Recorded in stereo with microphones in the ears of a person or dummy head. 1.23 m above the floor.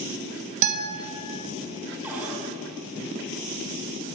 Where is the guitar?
40° right (ahead or behind), 1.8 m.